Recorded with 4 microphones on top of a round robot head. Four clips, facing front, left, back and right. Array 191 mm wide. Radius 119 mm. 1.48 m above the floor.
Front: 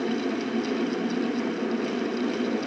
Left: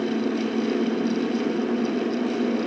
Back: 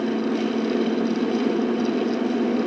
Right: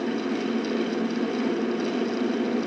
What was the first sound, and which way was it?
Only background noise.